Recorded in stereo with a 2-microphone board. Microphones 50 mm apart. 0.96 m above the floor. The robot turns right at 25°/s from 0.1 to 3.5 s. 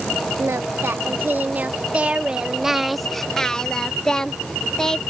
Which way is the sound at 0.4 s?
65° right.